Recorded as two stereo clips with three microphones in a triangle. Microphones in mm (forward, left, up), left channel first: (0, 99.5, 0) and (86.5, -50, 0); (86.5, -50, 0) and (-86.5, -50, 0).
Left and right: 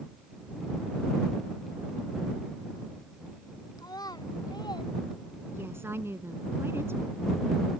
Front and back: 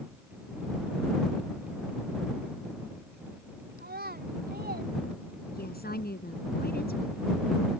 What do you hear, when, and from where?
3.8 s a child speaking: 175° right; by 4.9 s straight behind
5.5 s a woman speaking: 15° left